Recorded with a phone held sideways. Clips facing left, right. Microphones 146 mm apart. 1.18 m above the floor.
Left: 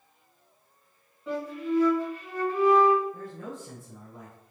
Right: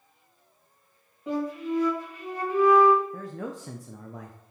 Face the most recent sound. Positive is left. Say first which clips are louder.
# right 3 dB
turn(degrees=-90)